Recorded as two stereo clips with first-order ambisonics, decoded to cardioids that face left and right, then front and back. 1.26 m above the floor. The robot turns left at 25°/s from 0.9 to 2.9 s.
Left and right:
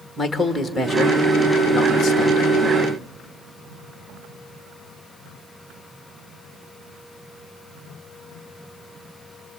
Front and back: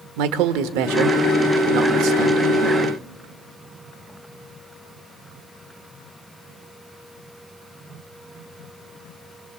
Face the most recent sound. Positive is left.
turn(degrees=130)